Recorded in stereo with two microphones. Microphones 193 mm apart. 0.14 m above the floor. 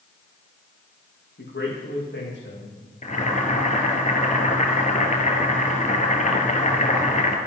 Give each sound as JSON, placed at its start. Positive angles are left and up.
{"t": 1.4, "sound": "a man speaking", "side_deg": 75, "distance_m": 7.0}
{"t": 3.0, "sound": "boiling", "side_deg": 40, "distance_m": 2.5}